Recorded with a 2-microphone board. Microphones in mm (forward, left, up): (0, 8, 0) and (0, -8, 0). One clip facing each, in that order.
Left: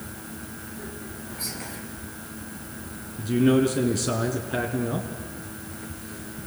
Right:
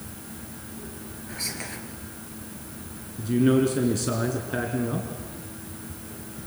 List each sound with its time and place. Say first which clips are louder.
1.3 s whispering: right 3 dB; 35° right (ahead or behind), 5 m
3.2 s a man speaking: left 1 dB; 5° left (ahead or behind), 3 m